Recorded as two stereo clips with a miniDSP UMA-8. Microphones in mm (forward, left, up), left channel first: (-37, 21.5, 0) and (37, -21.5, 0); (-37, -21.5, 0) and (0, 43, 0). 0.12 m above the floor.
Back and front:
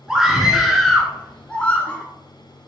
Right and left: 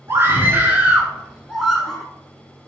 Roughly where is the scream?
Ahead left.